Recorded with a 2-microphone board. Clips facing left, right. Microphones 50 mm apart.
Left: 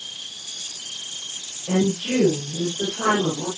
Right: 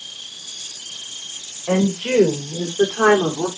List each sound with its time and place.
1.7 s a woman speaking: 70° right (ahead or behind), 7.5 m; by 3.5 s 65° right (ahead or behind), 6.5 m